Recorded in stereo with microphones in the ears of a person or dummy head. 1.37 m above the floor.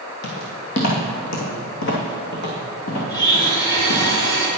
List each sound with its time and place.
0.2 s footsteps: 45° left (ahead or behind), 2 m; by 4.1 s 70° left (ahead or behind), 4 m
3.1 s a blender: 20° left (ahead or behind), 2.5 m